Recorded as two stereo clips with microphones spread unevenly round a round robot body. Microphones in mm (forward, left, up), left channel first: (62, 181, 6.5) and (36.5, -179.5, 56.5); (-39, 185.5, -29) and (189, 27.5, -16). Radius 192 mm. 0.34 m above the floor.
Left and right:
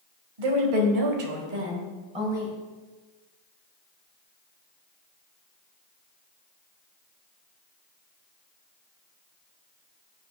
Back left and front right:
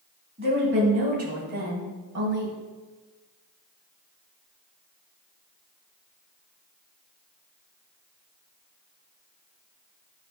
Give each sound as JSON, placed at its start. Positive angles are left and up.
{"t": 0.4, "sound": "a woman speaking", "azimuth_deg": -100, "distance_m": 1.9}